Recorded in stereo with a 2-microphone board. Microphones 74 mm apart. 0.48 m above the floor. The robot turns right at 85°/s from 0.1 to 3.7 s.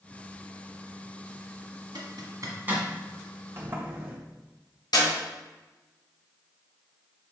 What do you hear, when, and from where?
1.9 s a zipper: 85° right, 1.5 m; by 2.9 s 10° right (ahead or behind), 1.5 m
3.6 s a sliding door: 35° right (ahead or behind), 1.6 m; by 4.2 s 25° right (ahead or behind), 1.6 m
4.9 s a clap: 70° left (ahead or behind), 3 m